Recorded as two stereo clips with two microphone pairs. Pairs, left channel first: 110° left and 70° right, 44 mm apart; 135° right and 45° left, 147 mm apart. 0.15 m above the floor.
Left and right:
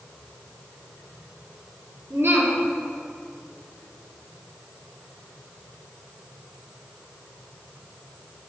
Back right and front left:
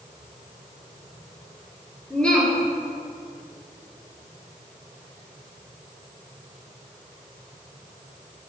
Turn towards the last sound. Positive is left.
turn(degrees=-55)